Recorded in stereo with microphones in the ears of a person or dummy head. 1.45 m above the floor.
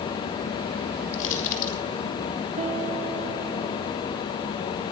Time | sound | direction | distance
1.1 | crushing | 40° left (ahead or behind) | 6 m
2.6 | a piano | 35° right (ahead or behind) | 2.5 m